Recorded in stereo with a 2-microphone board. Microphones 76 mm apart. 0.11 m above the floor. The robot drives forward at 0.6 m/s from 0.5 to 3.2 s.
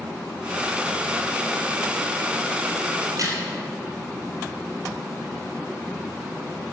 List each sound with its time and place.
3.0 s a crack: 50° right (ahead or behind), 3.5 m